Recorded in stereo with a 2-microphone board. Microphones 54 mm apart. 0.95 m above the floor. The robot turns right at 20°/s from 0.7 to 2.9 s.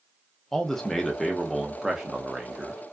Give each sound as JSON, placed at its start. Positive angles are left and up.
{"t": 0.5, "sound": "a man speaking", "azimuth_deg": 165, "distance_m": 0.5}